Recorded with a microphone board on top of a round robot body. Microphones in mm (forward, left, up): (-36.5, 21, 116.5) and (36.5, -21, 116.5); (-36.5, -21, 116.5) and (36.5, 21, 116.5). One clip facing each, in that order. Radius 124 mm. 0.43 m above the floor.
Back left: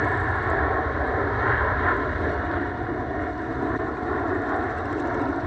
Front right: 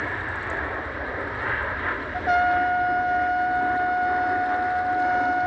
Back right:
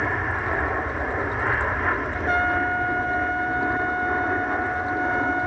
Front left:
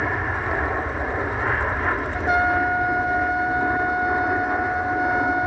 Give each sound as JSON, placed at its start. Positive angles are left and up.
{"t": 0.0, "sound": "an aircraft", "azimuth_deg": 120}
{"t": 2.1, "sound": "a trumpet", "azimuth_deg": -50}